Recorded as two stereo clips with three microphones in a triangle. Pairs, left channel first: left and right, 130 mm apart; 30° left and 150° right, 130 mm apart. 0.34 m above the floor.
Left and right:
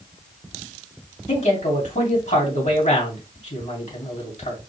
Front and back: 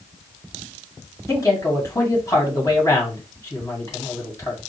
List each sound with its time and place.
1.3 s a man speaking: 90° left, 2.5 m